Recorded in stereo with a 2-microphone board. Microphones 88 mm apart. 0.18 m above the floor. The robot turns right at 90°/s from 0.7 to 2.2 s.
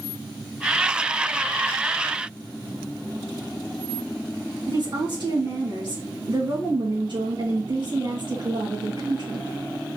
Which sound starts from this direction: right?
A woman speaking, at 4.7 s.